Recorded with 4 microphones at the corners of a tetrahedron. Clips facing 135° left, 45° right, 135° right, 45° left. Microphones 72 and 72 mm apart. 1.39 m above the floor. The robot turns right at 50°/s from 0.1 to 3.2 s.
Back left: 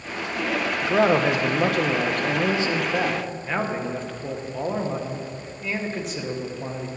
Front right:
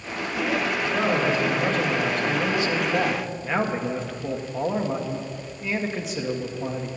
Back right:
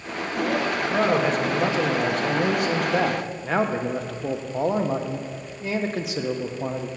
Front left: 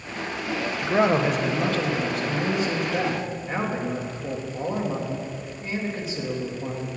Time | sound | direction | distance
0.8 | a man speaking | 105° left | 1.2 m